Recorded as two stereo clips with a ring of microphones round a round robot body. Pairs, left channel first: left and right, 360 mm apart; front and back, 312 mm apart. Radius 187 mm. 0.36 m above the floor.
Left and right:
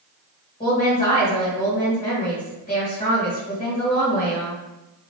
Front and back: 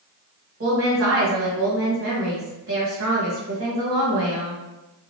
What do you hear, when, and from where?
0.6 s a woman speaking: 150° left, 1.8 m